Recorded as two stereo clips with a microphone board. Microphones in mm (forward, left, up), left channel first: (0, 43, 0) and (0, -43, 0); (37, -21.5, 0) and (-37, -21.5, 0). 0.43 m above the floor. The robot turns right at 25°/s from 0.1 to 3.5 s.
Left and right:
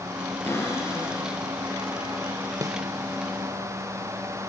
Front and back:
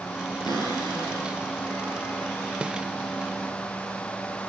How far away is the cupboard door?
About 5.5 m.